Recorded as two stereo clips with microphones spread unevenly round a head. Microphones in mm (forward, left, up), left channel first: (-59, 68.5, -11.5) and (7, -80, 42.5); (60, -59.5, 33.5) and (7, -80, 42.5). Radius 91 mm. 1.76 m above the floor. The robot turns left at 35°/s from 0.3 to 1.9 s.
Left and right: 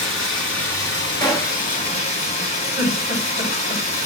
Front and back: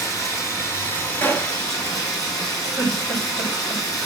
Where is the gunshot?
30° left, 0.9 m; by 1.7 s 15° left, 0.9 m.